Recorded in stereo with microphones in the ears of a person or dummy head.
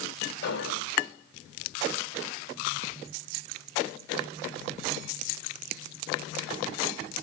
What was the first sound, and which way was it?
An explosion, 80° left.